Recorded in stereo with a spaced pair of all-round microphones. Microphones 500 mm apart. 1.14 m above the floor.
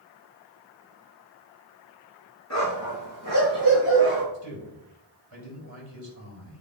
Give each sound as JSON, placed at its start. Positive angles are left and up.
{"t": 2.5, "sound": "a dog barking", "side_deg": 30, "distance_m": 5.0}
{"t": 4.3, "sound": "a man speaking", "side_deg": 30, "distance_m": 6.0}